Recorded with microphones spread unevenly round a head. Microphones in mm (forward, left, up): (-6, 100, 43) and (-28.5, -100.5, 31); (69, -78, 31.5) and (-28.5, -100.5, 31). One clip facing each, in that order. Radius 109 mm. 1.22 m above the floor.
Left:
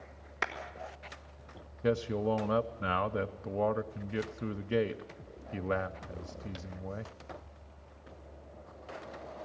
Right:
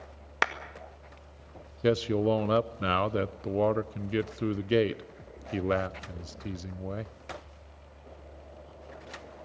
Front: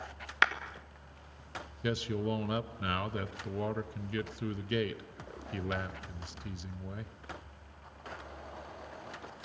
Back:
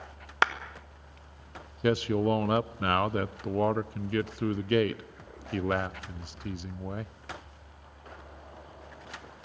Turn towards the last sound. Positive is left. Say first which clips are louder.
# right 5 dB, back 8 dB
turn(degrees=-135)